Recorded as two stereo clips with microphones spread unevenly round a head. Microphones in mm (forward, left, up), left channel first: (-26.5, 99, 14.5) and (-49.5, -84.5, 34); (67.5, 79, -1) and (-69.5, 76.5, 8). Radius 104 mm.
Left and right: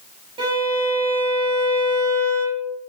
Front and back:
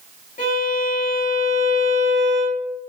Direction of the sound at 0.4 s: 30° right.